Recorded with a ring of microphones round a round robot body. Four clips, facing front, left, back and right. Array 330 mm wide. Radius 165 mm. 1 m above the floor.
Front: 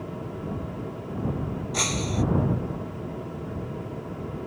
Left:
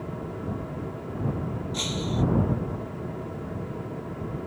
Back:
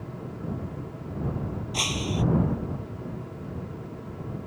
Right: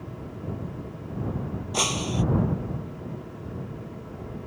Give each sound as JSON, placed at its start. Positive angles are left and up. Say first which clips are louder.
{"t": 1.7, "sound": "breaking glass", "louder": "right 2 dB, front 2 dB", "azimuth_deg": -75}